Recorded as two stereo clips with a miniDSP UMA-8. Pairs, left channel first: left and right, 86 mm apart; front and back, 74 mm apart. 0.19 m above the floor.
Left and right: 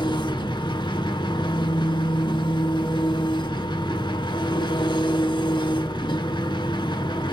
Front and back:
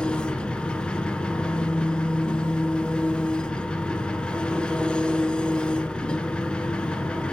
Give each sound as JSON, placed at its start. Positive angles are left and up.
{"t": 0.0, "sound": "an engine running", "azimuth_deg": 75, "distance_m": 0.8}